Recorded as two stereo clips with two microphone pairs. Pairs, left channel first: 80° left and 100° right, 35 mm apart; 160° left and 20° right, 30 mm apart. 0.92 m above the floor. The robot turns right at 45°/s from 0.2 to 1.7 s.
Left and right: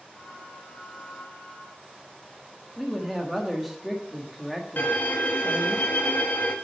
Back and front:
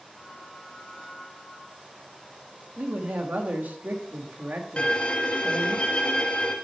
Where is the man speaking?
10° right, 1.2 m.